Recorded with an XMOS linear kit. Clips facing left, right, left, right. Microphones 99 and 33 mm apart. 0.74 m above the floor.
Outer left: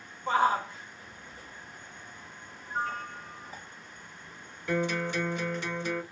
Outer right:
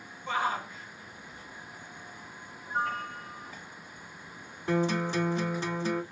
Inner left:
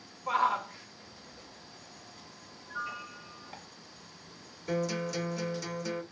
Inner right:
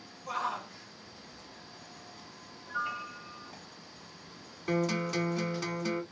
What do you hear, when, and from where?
0.3 s a shout: 35° left (ahead or behind), 1.1 m
2.7 s a piano: 55° right (ahead or behind), 1.6 m
4.7 s a guitar: 35° right (ahead or behind), 1.7 m